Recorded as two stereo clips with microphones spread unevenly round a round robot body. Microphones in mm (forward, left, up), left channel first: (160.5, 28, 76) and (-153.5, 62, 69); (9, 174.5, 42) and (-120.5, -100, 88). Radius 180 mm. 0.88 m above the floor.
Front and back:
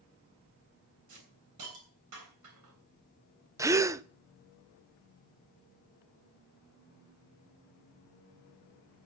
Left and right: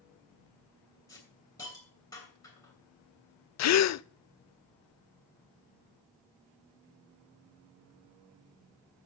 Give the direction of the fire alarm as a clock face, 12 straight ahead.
No fire alarm in this recording.